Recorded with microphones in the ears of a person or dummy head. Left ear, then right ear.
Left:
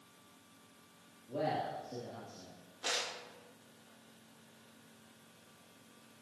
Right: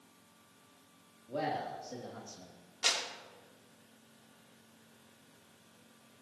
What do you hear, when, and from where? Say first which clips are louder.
1.3 s a man speaking: even; 45° right (ahead or behind), 3 m; by 2.5 s 80° right, 2 m
2.8 s a clap: right 4 dB; 75° right (ahead or behind), 3 m